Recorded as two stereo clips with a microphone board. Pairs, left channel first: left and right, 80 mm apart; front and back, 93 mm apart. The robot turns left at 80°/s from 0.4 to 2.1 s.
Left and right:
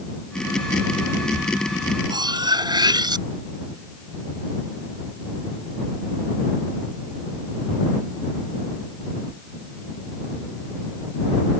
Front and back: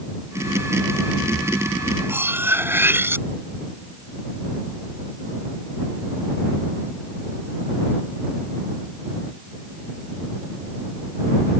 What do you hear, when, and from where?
2.1 s cutlery clinking: 115° right